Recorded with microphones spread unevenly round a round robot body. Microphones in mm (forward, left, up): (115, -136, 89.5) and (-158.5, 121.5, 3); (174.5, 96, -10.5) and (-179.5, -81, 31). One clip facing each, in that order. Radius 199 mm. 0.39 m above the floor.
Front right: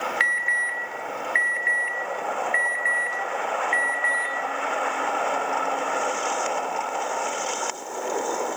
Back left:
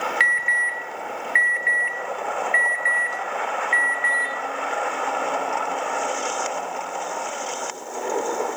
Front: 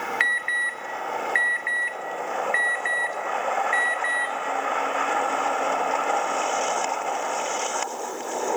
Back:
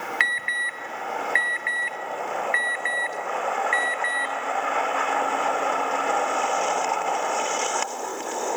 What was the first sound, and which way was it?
An alarm, 170° left.